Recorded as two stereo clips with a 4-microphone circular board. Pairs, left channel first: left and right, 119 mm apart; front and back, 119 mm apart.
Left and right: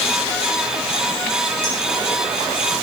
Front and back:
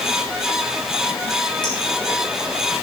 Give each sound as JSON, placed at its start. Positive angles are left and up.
{"t": 1.6, "sound": "a clink", "azimuth_deg": 50, "distance_m": 6.0}